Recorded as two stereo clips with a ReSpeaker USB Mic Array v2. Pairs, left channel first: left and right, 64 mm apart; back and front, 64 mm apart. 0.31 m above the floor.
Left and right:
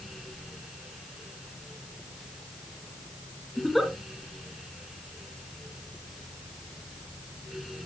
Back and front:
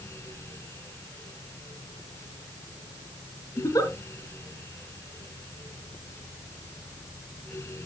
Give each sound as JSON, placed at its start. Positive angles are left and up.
{"t": 3.6, "sound": "a giggle", "azimuth_deg": 180, "distance_m": 2.5}